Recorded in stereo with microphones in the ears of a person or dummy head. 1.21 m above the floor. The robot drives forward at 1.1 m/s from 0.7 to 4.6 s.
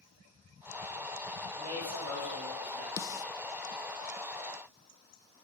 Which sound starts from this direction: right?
A man speaking, at 1.6 s.